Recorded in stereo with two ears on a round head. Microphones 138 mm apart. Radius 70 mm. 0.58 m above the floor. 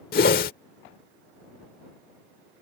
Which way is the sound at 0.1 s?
60° left (ahead or behind).